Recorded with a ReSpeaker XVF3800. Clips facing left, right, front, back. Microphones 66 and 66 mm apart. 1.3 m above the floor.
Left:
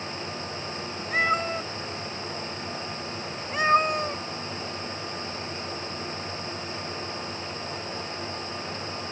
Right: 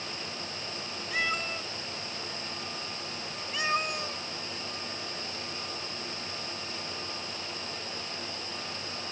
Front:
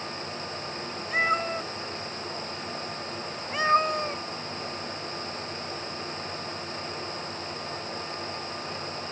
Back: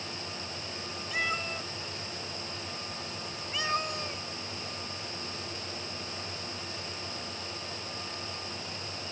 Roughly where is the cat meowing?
Ahead left.